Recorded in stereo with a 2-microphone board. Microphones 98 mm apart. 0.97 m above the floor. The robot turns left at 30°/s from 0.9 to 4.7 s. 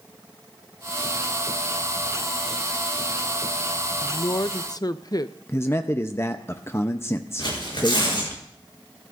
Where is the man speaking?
25° left (ahead or behind), 0.6 m.